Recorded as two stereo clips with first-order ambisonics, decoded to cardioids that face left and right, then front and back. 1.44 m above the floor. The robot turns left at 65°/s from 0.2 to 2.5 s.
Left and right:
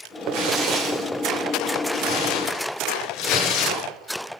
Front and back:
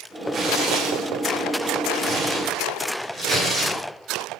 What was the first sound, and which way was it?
Tearing paper, 120° right.